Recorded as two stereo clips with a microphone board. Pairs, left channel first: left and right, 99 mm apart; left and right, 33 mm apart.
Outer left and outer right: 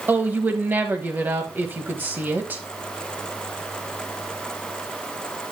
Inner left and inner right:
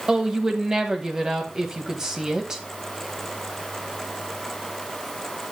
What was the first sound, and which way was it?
A woman speaking, 20° right (ahead or behind).